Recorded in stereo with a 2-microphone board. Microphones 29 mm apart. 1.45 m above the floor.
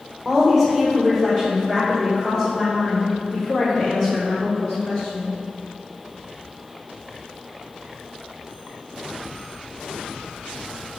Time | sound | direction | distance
0.2 | a woman speaking | 5° left (ahead or behind) | 1.7 m